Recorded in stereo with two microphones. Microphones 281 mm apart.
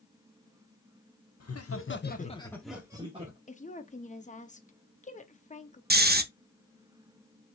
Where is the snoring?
35° right (ahead or behind), 0.5 m.